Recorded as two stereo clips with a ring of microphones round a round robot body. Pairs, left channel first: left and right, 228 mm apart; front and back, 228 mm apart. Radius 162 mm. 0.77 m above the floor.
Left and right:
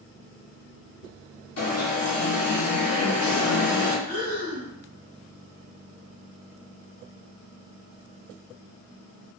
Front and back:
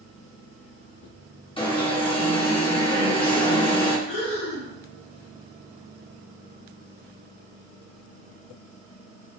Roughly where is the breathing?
Ahead left.